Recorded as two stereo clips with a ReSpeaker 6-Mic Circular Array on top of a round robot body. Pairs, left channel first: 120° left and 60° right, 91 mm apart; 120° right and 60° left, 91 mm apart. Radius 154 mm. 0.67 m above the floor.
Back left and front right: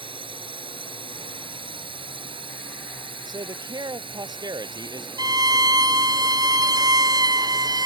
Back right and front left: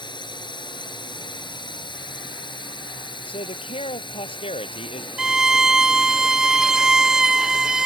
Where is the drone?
85° right; by 7.9 s 90° right.